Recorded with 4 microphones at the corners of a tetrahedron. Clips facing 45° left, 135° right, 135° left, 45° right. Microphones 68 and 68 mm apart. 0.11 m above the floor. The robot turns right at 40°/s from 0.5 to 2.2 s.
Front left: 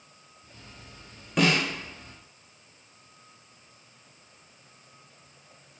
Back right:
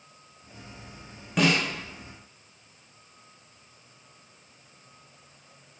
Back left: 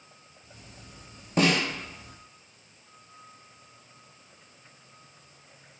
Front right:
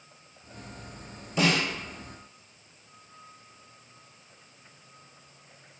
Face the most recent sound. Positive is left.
turn(degrees=170)